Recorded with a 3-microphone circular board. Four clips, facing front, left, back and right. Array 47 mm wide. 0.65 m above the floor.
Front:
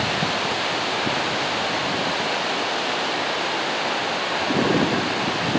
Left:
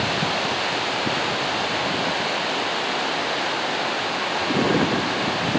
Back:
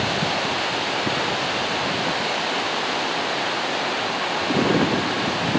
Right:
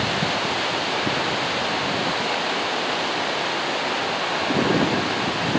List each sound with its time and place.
Only background noise.